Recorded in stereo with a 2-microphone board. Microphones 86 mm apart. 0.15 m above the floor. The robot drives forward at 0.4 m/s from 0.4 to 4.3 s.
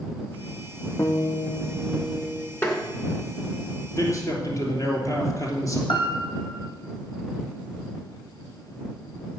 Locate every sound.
1.0 s a guitar: 35° left (ahead or behind), 1.4 m; by 2.5 s 25° left (ahead or behind), 1.9 m
2.6 s tapping: 20° left (ahead or behind), 2 m; by 2.8 s 25° left (ahead or behind), 2 m
4.0 s a man speaking: 40° left (ahead or behind), 3 m
5.9 s a piano: 70° left (ahead or behind), 1.5 m